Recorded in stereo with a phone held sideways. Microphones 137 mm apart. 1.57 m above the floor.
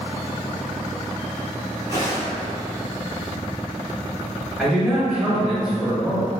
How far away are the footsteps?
About 1.7 m.